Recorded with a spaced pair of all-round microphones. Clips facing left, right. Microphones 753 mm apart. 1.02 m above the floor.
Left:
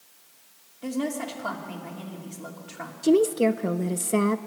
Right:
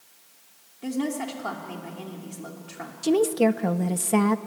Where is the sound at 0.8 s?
5° left (ahead or behind), 2.5 m.